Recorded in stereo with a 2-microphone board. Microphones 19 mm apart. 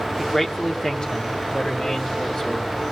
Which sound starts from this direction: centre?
A man speaking, at 0.2 s.